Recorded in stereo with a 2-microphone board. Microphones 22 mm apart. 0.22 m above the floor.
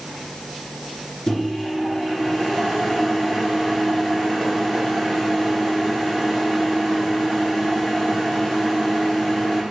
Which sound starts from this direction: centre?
A microwave, at 1.3 s.